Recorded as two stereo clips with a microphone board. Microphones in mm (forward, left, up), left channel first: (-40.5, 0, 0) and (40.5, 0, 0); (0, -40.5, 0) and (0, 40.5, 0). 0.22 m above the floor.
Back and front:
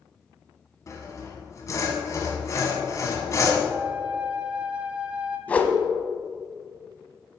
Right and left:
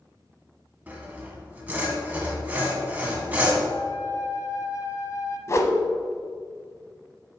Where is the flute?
70° right, 0.9 m.